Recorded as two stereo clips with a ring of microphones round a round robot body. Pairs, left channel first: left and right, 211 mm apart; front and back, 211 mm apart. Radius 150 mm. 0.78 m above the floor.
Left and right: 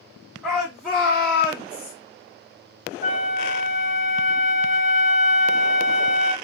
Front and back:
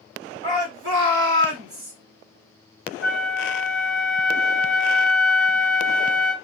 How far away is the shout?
About 1.7 m.